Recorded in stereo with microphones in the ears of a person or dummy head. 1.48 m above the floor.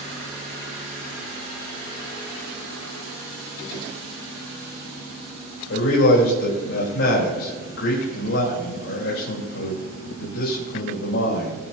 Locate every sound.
5.7 s a man speaking: 80° left, 4 m